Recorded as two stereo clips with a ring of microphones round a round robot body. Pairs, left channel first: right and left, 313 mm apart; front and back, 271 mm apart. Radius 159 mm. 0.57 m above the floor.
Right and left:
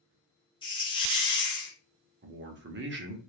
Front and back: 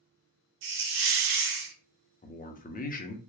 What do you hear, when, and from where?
0.6 s a hiss: 165° right, 0.9 m
2.2 s a man speaking: 50° left, 0.9 m